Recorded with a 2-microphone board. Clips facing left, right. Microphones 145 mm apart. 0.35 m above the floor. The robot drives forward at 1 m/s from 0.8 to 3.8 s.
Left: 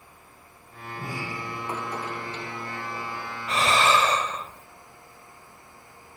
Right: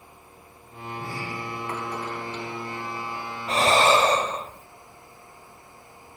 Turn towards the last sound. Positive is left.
turn(degrees=-35)  # may be behind; listen again after turning